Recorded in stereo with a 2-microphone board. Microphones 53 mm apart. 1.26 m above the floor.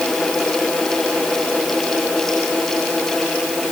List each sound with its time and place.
Only background noise.